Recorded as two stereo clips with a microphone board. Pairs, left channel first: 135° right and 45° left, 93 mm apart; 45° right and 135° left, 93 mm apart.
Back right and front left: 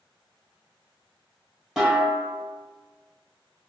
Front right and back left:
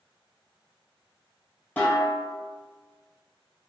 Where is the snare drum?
30° right, 1.4 m.